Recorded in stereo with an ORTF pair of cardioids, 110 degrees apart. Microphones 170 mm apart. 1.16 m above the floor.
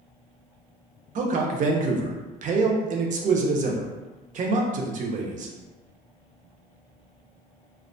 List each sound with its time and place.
1.1 s a man speaking: 50° right, 0.5 m